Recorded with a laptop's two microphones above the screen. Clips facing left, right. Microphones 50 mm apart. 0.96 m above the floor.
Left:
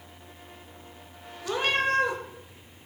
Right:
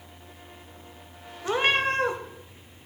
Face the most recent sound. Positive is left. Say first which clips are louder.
# right 2 dB
turn(degrees=-35)  # may be behind; listen again after turning